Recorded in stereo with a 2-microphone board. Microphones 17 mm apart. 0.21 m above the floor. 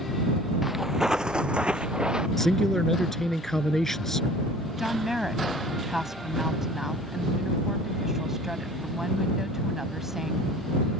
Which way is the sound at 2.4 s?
20° left (ahead or behind).